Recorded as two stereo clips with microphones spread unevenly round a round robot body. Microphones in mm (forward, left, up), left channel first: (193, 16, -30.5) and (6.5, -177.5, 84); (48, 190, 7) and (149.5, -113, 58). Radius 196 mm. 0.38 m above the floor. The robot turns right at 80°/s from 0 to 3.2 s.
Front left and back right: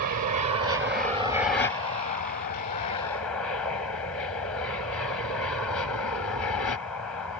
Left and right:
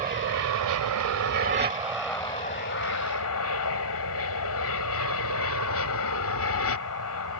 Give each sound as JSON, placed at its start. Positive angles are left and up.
{"t": 0.0, "sound": "an aircraft", "azimuth_deg": -145}